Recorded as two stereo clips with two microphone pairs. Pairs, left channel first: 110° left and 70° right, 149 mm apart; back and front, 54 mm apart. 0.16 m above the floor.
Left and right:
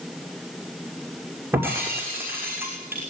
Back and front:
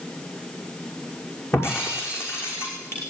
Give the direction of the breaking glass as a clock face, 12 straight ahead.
5 o'clock.